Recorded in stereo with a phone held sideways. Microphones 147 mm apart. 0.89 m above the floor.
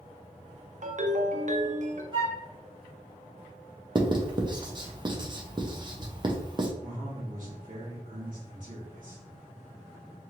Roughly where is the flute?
Right.